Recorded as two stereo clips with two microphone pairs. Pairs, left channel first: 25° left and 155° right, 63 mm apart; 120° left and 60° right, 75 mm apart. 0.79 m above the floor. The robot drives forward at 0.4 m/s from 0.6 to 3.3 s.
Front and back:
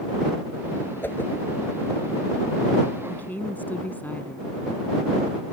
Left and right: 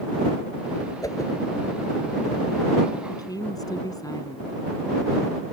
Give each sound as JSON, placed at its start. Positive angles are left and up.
{"t": 1.0, "sound": "a whoosh", "azimuth_deg": 80}
{"t": 3.1, "sound": "a woman speaking", "azimuth_deg": 85}